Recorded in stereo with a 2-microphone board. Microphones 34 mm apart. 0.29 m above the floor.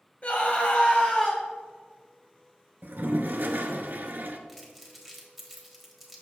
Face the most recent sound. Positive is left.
turn(degrees=0)  # may be behind; listen again after turning